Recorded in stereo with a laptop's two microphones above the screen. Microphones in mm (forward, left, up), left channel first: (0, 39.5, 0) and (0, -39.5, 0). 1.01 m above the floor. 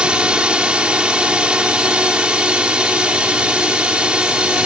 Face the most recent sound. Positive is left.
turn(degrees=-15)  # may be behind; listen again after turning